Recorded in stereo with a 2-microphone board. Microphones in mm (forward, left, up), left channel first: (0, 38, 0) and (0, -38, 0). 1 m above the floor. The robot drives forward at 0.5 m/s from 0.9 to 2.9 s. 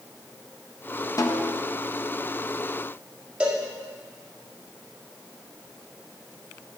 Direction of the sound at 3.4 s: 15° right (ahead or behind).